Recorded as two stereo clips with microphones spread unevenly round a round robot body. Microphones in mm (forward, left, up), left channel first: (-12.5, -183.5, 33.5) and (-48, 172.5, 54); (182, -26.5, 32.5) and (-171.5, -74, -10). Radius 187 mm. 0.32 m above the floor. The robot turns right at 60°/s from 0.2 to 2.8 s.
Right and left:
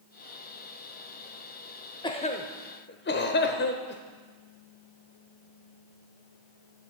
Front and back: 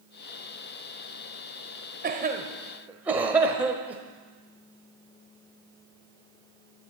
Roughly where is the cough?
Behind right.